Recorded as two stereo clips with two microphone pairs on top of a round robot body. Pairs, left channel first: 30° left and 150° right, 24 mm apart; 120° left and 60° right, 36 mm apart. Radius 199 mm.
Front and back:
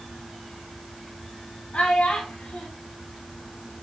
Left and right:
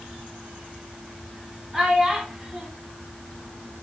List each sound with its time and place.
1.7 s a child speaking: 25° left, 2 m